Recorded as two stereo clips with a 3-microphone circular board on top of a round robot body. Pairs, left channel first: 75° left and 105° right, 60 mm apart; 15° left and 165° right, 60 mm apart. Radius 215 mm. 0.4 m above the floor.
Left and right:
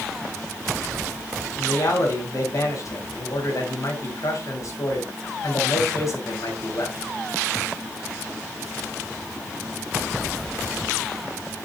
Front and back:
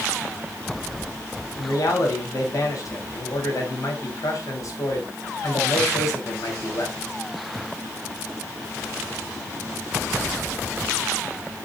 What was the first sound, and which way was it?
A man speaking, 45° left.